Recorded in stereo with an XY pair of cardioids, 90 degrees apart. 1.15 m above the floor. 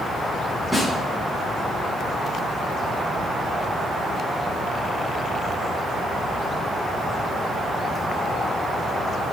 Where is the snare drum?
5° left, 8 m.